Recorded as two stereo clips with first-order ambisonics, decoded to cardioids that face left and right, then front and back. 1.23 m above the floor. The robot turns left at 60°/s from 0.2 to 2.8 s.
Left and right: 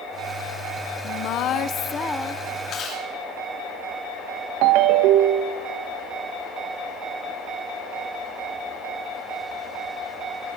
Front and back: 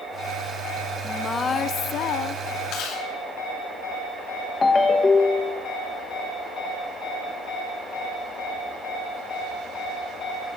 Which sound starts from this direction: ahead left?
Chewing, at 2.7 s.